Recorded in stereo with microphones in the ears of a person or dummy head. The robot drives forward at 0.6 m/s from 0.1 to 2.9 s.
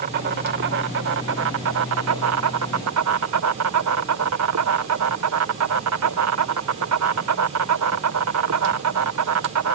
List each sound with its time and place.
0.0 s an insect: 50° right (ahead or behind); by 9.8 s 85° right